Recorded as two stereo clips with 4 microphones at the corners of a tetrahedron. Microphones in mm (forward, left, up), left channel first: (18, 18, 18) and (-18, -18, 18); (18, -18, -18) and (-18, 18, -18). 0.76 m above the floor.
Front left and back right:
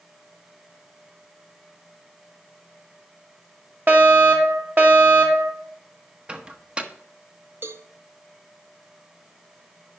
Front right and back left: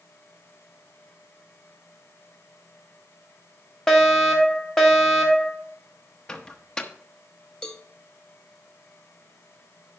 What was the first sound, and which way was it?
A fire alarm, 120° right.